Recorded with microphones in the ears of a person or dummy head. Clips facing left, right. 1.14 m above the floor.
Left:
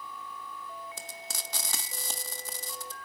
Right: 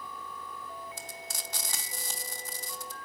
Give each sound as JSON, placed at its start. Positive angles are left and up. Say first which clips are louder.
{"t": 1.0, "sound": "frying", "louder": "even", "side_deg": 65, "distance_m": 1.6}